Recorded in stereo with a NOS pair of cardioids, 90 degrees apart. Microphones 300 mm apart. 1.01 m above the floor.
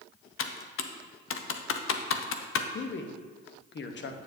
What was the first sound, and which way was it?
Typing on a keyboard, 50° left.